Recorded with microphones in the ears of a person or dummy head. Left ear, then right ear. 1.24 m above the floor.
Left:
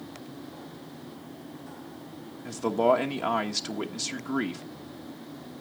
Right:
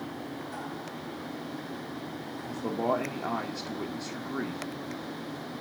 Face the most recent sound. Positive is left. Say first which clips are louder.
# left 6 dB
turn(degrees=90)